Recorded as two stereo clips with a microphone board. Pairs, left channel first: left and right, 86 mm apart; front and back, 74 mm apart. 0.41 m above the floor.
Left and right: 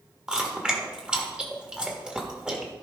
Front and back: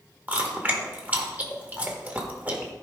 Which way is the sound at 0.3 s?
150° right.